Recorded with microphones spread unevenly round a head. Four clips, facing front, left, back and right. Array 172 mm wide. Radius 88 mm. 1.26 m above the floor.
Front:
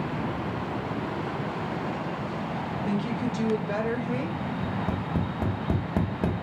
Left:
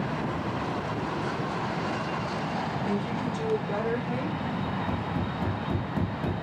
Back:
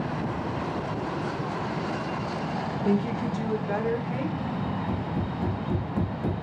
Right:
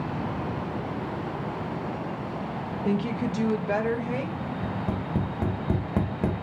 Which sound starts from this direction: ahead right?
Tapping, at 4.6 s.